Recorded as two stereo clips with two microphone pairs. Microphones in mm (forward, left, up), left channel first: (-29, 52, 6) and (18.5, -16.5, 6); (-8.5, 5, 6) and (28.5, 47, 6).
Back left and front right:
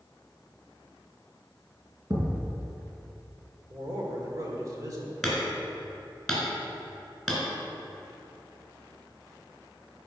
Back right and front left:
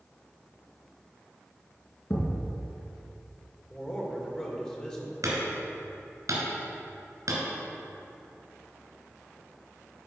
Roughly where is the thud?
Right.